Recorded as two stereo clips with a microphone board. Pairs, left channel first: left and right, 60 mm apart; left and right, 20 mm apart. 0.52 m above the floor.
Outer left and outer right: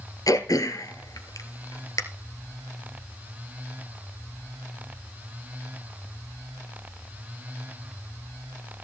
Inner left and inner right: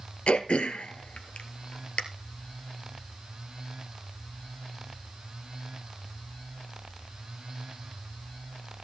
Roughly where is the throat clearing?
Left.